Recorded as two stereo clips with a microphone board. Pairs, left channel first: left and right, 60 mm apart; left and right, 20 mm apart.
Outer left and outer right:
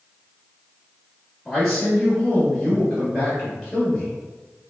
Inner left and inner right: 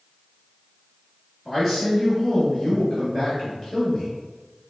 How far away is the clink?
No clink in this recording.